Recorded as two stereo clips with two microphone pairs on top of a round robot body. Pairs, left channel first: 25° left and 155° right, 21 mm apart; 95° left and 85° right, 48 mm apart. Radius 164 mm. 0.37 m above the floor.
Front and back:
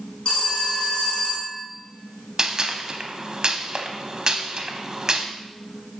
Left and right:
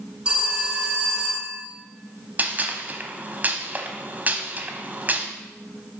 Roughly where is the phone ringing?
Ahead.